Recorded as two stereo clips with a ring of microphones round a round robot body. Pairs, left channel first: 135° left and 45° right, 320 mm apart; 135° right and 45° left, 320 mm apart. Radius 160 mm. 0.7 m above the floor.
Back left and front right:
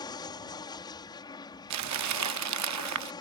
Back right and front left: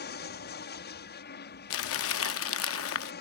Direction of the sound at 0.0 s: 160° right.